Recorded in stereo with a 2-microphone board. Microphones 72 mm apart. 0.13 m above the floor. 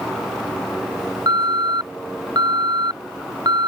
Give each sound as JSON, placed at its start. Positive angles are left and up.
{"t": 1.3, "sound": "an alarm", "side_deg": -70}